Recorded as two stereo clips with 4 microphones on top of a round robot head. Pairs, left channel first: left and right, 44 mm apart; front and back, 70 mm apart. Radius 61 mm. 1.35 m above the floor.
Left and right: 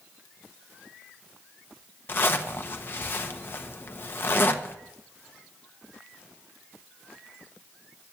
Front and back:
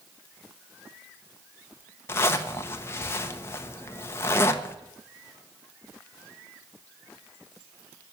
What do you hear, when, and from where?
2.1 s a zipper: 55° left, 1.1 m